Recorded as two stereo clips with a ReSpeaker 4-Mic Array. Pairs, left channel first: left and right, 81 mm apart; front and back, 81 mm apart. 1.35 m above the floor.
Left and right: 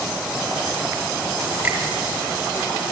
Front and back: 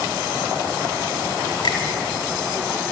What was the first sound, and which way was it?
A finger snap, 15° right.